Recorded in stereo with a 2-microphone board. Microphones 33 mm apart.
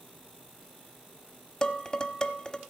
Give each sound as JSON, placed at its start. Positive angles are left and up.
{"t": 1.6, "sound": "dishes clattering", "side_deg": 25, "distance_m": 0.9}